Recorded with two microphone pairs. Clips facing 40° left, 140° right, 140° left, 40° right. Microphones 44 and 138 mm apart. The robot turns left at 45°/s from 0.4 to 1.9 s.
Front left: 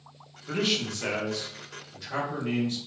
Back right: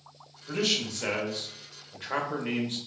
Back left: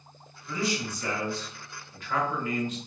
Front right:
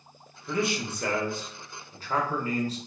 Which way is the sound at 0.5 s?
25° right.